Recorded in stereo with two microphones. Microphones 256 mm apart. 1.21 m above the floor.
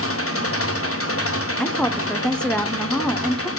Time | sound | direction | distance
0.0 | an engine running | 55° left (ahead or behind) | 0.8 m
1.6 | a woman speaking | 5° left (ahead or behind) | 0.5 m